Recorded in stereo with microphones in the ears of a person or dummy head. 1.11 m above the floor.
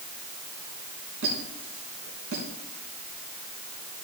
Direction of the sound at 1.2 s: 75° right (ahead or behind).